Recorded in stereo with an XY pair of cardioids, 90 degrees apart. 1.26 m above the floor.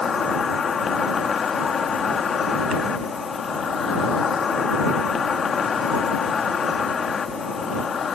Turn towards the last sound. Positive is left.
turn(degrees=50)